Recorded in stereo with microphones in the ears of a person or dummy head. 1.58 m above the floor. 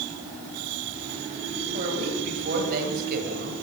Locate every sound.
1.7 s a woman speaking: 45° right (ahead or behind), 9.5 m; by 3.5 s 50° right (ahead or behind), 7.5 m